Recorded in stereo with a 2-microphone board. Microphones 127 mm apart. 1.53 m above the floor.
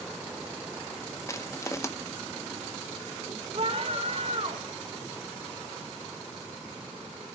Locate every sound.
1.3 s crushing: 25° left (ahead or behind), 0.9 m
3.5 s a scream: 50° right (ahead or behind), 1.7 m